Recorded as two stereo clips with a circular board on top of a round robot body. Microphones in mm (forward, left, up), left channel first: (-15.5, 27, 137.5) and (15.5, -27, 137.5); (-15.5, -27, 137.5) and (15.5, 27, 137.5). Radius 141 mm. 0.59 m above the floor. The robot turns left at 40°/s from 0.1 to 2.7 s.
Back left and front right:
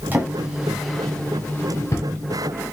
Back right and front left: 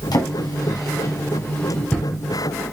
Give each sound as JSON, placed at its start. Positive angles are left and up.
{"t": 0.1, "sound": "a drawer", "azimuth_deg": -120, "distance_m": 2.0}